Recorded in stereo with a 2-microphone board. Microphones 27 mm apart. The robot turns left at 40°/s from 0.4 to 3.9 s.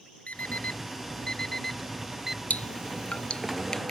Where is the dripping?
75° left (ahead or behind); by 3.9 s 25° left (ahead or behind).